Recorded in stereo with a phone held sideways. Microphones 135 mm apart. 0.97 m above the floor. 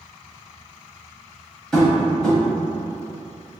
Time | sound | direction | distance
1.7 | tapping | 5° left (ahead or behind) | 1.2 m